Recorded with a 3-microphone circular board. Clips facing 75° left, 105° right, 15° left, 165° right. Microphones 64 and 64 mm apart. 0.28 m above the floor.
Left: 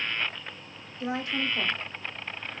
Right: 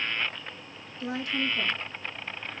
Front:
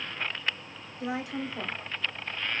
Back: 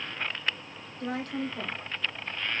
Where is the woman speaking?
80° left, 1.0 m.